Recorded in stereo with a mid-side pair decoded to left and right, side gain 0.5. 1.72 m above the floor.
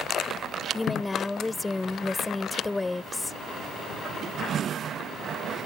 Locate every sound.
0.7 s a woman speaking: 15° left